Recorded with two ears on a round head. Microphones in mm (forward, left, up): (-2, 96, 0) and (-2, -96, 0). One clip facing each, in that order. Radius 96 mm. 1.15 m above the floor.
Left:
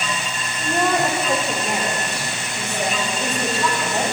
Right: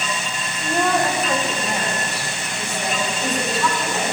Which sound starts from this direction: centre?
A woman speaking, at 0.6 s.